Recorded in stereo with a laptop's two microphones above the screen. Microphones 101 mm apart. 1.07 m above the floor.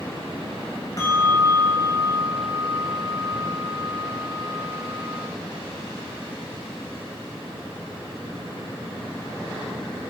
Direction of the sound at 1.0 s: 40° left (ahead or behind).